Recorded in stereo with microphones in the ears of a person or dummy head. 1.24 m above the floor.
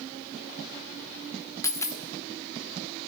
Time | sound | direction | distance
1.6 | a dropped coin | 15° left (ahead or behind) | 1.2 m